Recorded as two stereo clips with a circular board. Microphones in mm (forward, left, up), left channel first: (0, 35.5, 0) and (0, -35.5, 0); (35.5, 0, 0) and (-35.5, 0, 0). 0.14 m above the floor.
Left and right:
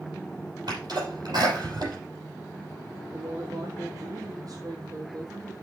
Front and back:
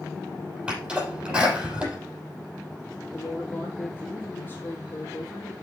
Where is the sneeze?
105° right, 6 m.